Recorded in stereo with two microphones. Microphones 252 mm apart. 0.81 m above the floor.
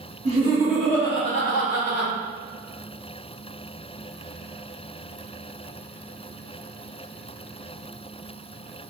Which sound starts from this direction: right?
Laughter, at 0.2 s.